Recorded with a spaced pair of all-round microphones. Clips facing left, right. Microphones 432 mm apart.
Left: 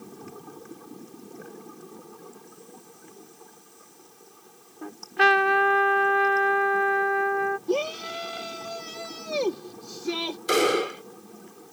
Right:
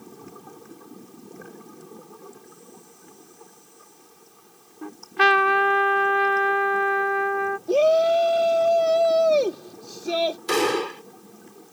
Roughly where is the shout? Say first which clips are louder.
Right 8 dB; centre.